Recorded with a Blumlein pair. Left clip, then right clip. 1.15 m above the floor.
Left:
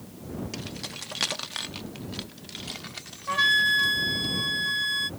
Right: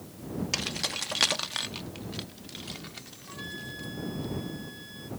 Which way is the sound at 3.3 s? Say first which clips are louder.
Left 21 dB; 50° left.